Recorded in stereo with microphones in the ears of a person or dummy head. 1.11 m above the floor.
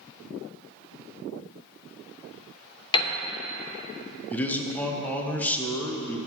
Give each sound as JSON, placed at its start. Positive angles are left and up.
{"t": 2.9, "sound": "a piano", "side_deg": 25, "distance_m": 0.6}
{"t": 4.3, "sound": "a man speaking", "side_deg": 10, "distance_m": 0.9}